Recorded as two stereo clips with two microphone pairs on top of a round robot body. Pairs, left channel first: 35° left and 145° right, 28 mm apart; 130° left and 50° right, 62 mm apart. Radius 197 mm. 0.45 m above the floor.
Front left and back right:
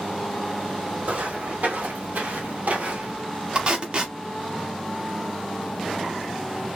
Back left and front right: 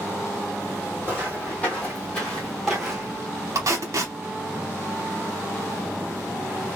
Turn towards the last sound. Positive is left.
turn(degrees=-95)